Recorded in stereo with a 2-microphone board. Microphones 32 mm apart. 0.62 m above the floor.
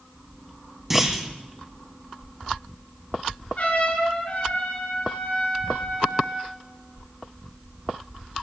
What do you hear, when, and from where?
0.9 s a clunk: 10° right (ahead or behind), 2.5 m
3.6 s a trumpet: 50° left (ahead or behind), 6.5 m